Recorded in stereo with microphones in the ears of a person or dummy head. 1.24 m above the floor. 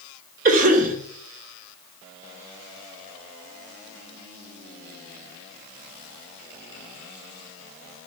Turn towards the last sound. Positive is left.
turn(degrees=-45)  # may be behind; listen again after turning